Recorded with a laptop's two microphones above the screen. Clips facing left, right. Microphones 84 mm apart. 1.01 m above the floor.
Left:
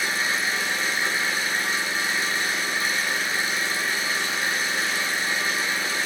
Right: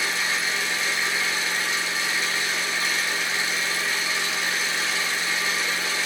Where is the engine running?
45° left (ahead or behind), 6 m.